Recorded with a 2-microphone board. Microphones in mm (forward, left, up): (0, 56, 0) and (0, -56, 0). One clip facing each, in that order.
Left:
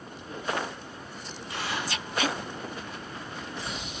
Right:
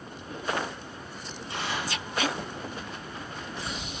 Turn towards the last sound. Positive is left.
turn(degrees=-25)  # may be behind; listen again after turning